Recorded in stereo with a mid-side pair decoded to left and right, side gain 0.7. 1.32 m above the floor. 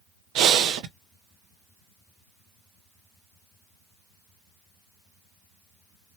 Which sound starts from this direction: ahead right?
Breathing, at 0.3 s.